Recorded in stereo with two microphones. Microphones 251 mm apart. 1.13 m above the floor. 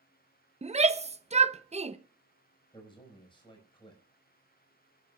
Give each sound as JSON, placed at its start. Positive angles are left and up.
{"t": 0.6, "sound": "a shout", "side_deg": -25, "distance_m": 0.8}
{"t": 2.7, "sound": "a man speaking", "side_deg": 20, "distance_m": 5.5}